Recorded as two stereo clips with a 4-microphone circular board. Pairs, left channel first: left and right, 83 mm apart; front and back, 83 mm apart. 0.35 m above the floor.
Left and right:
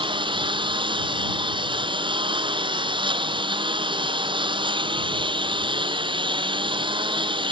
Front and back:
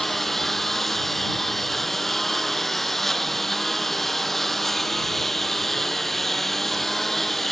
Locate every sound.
0.0 s a lawn mower: 85° right